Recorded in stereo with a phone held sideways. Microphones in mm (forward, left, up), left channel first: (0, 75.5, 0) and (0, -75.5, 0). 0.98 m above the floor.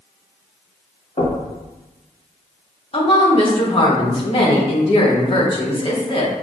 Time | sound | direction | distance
1.2 | knocking | 45° left (ahead or behind) | 1.4 m
2.9 | a woman speaking | 40° left (ahead or behind) | 1.1 m